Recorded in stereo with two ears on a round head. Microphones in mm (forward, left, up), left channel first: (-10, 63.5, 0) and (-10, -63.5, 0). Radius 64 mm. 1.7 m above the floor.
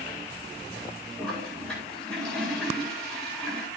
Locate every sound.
1.2 s a toilet flushing: 5° left (ahead or behind), 8.5 m